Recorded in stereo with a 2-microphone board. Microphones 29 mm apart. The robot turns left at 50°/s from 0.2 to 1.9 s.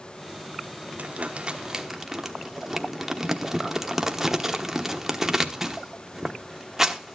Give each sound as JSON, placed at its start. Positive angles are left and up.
{"t": 1.0, "sound": "crumpling", "side_deg": -60, "distance_m": 1.1}